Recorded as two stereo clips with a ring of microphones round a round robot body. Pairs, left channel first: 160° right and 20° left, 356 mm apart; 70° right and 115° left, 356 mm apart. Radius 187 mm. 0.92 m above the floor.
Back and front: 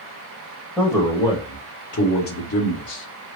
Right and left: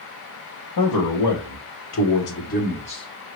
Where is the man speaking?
70° right, 1.3 m; by 3.4 s 145° right, 1.4 m.